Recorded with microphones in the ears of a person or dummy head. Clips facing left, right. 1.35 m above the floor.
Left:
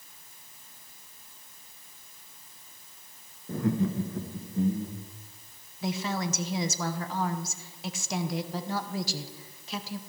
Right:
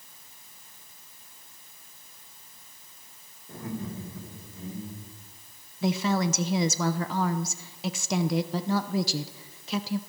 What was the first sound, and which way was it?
Laughter, 70° left (ahead or behind).